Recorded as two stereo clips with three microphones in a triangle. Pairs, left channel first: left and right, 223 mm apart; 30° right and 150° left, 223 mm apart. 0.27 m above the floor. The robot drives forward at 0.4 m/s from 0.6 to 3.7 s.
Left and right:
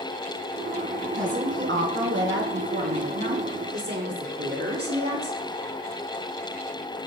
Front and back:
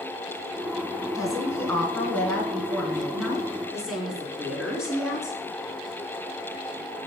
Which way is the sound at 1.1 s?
105° right.